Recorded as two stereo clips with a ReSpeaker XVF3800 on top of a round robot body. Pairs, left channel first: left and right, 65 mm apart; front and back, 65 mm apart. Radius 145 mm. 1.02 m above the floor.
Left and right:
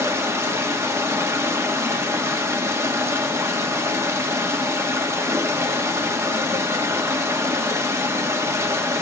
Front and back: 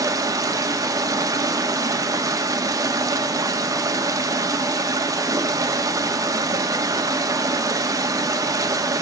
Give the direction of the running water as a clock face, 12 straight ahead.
5 o'clock.